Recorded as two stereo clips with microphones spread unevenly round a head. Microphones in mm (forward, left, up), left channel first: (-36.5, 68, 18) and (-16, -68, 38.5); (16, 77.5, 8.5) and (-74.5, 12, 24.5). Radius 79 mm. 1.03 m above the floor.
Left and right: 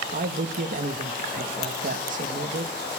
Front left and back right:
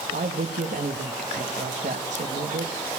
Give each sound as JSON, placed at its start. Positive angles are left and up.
{"t": 0.1, "sound": "a man speaking", "azimuth_deg": -110, "distance_m": 1.4}